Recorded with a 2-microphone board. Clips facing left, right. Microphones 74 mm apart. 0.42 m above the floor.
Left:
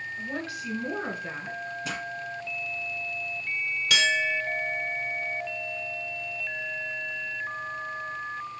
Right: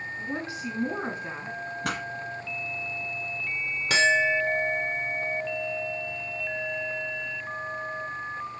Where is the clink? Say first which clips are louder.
Right 4 dB; 35° right (ahead or behind), 0.7 m.